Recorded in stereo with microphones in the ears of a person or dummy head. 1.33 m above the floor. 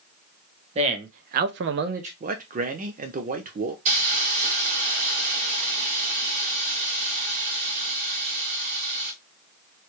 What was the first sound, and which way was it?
A man speaking, 40° right (ahead or behind).